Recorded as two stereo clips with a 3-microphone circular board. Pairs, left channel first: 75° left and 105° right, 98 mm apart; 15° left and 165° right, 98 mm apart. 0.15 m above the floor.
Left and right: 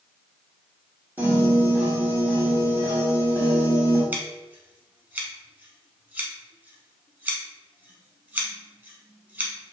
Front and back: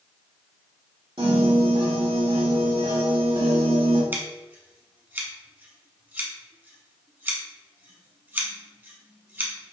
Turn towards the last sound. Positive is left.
turn(degrees=-140)